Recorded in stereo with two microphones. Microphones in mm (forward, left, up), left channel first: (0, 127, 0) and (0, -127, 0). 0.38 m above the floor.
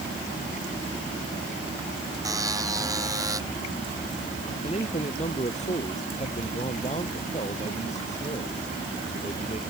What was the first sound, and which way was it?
A buzzer, 15° right (ahead or behind).